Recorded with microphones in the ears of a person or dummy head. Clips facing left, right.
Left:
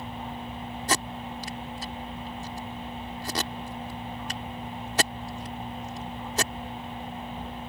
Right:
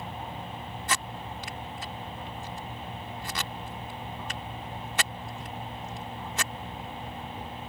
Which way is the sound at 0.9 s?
30° left (ahead or behind).